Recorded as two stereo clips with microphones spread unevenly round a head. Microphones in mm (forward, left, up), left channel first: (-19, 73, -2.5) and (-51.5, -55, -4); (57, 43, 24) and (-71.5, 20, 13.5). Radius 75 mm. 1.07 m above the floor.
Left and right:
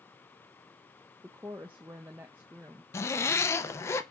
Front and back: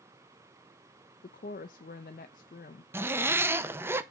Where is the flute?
No flute in this recording.